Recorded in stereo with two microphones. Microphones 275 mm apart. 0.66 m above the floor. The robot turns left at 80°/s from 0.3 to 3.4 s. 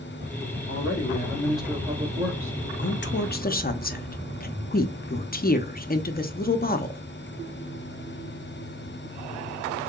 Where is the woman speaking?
40° left (ahead or behind), 0.6 m; by 7.0 s 30° left (ahead or behind), 0.6 m.